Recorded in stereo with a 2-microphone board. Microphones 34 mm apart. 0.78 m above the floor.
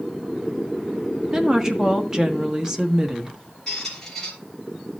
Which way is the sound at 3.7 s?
15° left (ahead or behind).